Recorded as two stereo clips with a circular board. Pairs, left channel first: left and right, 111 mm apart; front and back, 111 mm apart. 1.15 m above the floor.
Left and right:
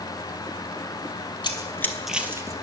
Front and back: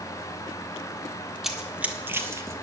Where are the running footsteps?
95° left, 1.4 m; by 2.5 s 125° right, 1.4 m.